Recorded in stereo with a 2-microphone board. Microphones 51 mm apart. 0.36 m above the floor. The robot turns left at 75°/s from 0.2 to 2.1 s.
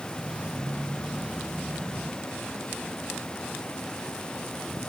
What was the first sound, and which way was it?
Only background noise.